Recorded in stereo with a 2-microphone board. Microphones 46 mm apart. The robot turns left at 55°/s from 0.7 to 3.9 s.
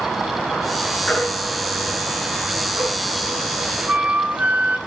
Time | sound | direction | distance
1.1 | a baby crying | 25° left (ahead or behind) | 8 m
3.9 | a flute | 35° right (ahead or behind) | 1.1 m